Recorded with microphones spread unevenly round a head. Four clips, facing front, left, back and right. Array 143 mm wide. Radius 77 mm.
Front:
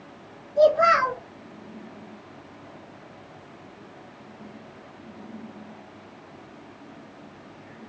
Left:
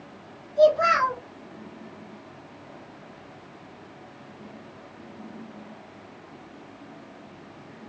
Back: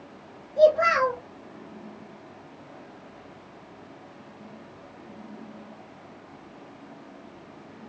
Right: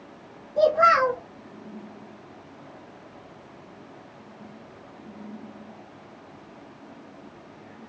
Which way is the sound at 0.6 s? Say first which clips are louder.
Even, front 1 dB; 75° right.